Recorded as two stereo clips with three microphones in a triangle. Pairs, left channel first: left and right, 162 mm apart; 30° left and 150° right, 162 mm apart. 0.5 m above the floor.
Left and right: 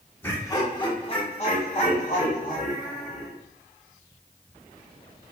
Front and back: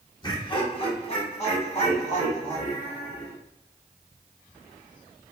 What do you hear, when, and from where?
0.2 s laughter: 30° left, 0.9 m; by 3.3 s 70° left, 2 m